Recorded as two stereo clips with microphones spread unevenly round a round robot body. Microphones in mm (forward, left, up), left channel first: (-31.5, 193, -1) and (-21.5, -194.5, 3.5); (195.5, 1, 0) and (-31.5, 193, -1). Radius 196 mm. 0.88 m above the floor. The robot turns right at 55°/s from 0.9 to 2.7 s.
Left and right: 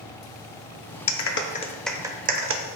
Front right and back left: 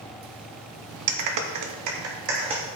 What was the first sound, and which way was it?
A clap, 135° left.